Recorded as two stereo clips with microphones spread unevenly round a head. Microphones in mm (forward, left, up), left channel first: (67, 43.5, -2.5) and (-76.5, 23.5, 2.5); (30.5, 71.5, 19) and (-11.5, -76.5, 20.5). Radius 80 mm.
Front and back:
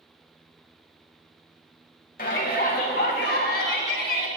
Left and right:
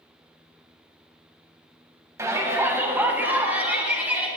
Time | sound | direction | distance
2.2 | a shout | 35° right | 1.6 m